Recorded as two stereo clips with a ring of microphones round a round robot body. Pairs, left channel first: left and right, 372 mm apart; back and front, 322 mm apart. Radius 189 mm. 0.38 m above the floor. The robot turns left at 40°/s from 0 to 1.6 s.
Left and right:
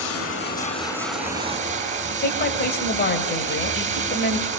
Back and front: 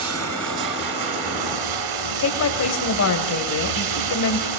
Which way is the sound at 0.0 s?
45° left.